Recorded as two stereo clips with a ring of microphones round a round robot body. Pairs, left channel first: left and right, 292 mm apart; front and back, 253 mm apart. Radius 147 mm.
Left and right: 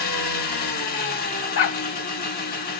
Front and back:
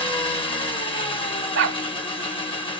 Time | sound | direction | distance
0.0 | an engine running | 55° left | 0.8 m
1.6 | a dog barking | 140° left | 0.6 m